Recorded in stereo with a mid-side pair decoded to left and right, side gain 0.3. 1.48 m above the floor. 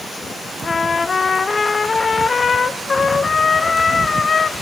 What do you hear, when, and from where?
0.6 s a trumpet: 50° left, 0.5 m